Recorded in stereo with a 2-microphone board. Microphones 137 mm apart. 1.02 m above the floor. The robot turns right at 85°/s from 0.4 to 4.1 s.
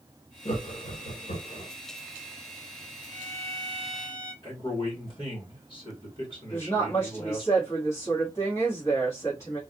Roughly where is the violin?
Right.